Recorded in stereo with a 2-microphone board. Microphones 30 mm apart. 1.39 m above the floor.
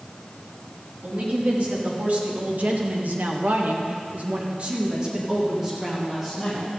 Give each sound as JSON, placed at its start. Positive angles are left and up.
{"t": 1.0, "sound": "a woman speaking", "side_deg": -50, "distance_m": 3.0}